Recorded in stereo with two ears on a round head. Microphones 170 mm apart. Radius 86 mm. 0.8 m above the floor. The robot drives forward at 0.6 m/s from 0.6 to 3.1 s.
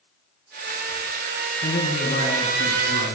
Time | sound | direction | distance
1.6 | a man speaking | 40° left (ahead or behind) | 7.5 m